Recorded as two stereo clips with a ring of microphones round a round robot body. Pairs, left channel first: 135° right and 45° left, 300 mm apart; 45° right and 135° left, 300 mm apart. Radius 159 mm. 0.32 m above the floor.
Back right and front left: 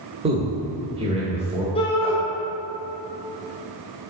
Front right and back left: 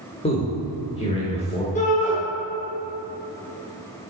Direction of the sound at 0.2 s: Straight ahead.